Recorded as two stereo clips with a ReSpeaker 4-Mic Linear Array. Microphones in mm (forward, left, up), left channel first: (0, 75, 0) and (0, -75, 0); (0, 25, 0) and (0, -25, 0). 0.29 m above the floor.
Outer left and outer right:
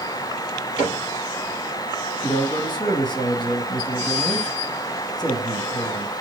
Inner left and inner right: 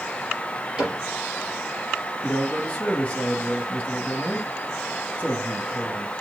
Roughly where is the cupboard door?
Centre.